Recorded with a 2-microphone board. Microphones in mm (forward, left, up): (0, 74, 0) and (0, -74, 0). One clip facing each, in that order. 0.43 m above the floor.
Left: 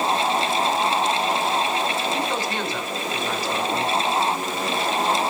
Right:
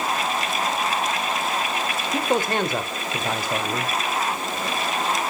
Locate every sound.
2.1 s a man speaking: 50° right (ahead or behind), 1.2 m